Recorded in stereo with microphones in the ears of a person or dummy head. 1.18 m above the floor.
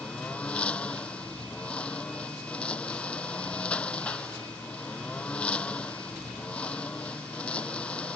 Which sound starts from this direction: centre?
A lawn mower, at 0.0 s.